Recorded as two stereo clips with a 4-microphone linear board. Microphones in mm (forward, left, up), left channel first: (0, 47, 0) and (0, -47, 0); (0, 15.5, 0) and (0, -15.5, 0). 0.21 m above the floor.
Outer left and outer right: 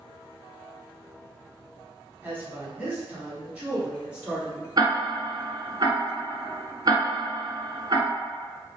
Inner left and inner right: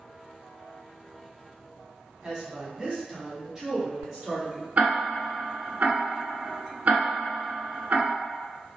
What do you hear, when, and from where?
2.2 s a woman speaking: 20° right (ahead or behind), 1.2 m; by 4.7 s 10° right (ahead or behind), 2 m
4.8 s ticking: 45° right (ahead or behind), 0.9 m